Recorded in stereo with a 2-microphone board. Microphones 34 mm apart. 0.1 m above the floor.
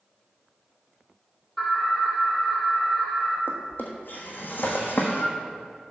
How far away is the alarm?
About 3 m.